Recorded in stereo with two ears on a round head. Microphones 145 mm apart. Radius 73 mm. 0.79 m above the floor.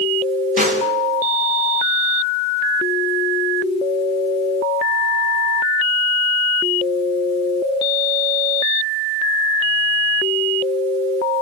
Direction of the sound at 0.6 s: 50° right (ahead or behind).